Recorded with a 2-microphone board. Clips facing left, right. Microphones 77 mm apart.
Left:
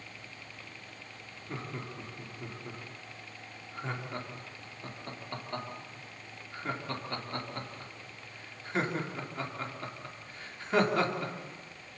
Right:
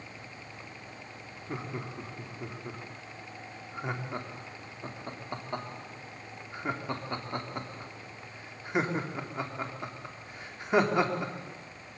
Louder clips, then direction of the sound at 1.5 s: Right 3 dB; 20° right (ahead or behind).